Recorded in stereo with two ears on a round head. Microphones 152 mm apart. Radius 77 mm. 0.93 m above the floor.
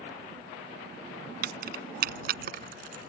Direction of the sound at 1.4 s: 55° right (ahead or behind).